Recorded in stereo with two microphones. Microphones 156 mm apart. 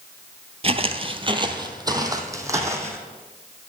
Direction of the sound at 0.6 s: 40° right (ahead or behind).